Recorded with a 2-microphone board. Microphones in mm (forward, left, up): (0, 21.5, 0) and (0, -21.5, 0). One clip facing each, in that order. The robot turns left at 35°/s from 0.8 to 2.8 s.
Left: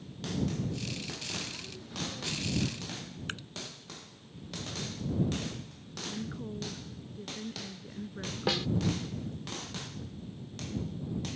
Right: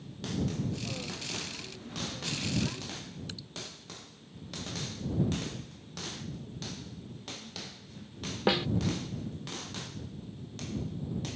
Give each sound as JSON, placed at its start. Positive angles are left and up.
{"t": 3.3, "sound": "dripping", "side_deg": 45}
{"t": 6.0, "sound": "a woman speaking", "side_deg": 60}
{"t": 8.5, "sound": "a snare drum", "side_deg": -15}